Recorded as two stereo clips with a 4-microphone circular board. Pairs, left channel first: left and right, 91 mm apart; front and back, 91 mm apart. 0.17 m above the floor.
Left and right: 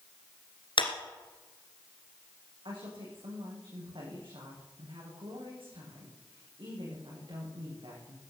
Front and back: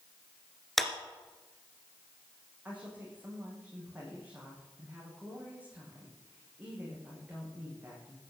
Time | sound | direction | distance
0.8 | a clap | 85° left | 2 m
2.6 | a woman speaking | 105° right | 8.5 m